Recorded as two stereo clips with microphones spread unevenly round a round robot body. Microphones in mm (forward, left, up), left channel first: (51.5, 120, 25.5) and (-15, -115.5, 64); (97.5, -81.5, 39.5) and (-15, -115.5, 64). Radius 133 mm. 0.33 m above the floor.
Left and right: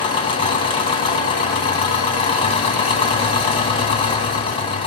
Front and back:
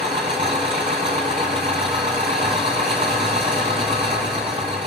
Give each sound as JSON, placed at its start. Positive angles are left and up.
{"t": 0.0, "sound": "an engine running", "azimuth_deg": 140, "distance_m": 2.0}